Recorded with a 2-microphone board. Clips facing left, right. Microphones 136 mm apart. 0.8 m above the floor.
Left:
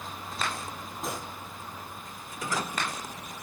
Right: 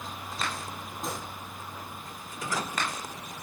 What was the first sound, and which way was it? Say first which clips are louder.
A gunshot: left 1 dB; 5° left (ahead or behind).